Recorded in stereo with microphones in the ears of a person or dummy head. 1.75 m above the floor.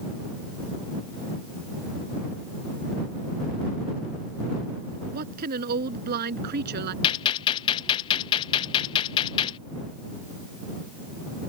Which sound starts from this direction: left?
A gunshot, at 7.0 s.